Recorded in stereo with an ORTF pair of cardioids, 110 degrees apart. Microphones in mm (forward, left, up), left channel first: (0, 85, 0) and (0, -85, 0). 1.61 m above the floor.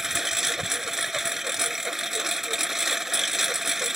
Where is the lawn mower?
Straight ahead.